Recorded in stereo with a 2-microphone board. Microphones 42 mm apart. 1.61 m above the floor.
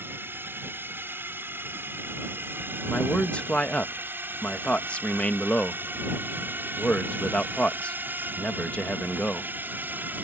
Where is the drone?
60° right (ahead or behind); by 10.3 s 50° right (ahead or behind).